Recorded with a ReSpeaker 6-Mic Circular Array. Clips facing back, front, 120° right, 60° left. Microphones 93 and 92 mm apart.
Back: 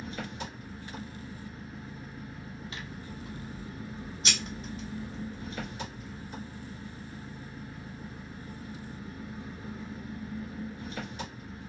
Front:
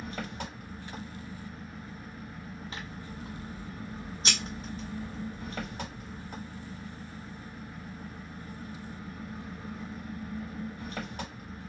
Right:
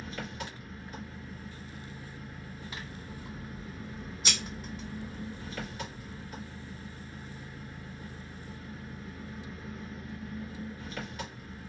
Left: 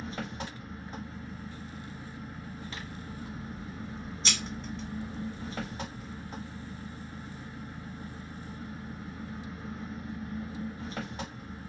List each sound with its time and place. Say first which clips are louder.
0.0 s an engine running: even, left 2 dB; 10° left, 1.7 m
2.7 s scissors: even, left 2 dB; 45° right, 1.6 m